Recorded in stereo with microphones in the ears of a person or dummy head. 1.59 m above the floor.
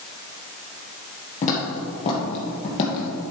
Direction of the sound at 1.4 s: 40° left (ahead or behind).